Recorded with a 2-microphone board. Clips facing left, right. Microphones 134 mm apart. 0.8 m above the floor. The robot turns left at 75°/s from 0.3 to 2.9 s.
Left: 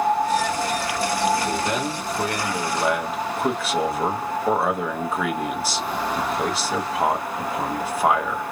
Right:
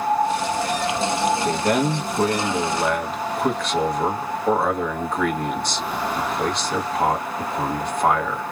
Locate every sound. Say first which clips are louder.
1.4 s a man speaking: right 4 dB; 80° right, 0.9 m; by 8.4 s 175° left, 0.9 m